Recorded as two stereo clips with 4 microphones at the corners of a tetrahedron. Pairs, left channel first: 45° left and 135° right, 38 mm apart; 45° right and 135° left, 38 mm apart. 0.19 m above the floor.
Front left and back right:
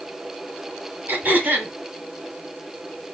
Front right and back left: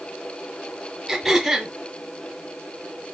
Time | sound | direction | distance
1.1 | throat clearing | 135° right | 2.5 m